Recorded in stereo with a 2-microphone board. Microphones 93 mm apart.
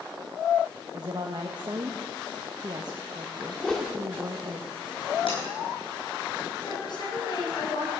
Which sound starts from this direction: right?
A woman speaking, at 0.9 s.